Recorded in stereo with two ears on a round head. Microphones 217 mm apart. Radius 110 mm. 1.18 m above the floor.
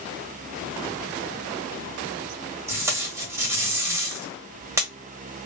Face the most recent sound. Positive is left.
turn(degrees=-10)  # may be behind; listen again after turning